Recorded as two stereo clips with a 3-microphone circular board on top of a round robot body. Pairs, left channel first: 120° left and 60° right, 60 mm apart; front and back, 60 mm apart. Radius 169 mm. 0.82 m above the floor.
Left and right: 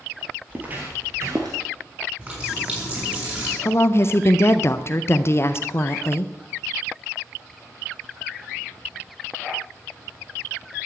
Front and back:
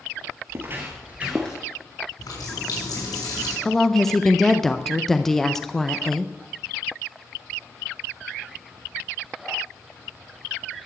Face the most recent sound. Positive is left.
turn(degrees=85)